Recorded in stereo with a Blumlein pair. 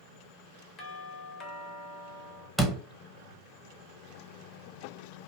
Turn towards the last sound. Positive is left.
turn(degrees=5)